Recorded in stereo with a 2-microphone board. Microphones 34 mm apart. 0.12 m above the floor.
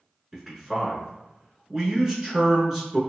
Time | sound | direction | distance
0.3 | a man speaking | 15° right (ahead or behind) | 1.1 m